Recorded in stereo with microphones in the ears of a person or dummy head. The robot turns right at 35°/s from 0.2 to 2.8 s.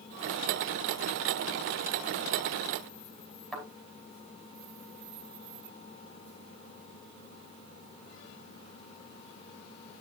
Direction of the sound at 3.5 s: Centre (ahead or behind).